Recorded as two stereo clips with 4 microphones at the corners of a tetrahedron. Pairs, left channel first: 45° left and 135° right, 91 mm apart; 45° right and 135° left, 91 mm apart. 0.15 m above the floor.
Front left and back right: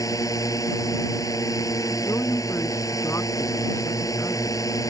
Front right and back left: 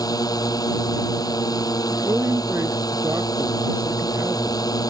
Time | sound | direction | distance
0.0 | a drone | straight ahead | ?
1.9 | a man speaking | 95° left | ?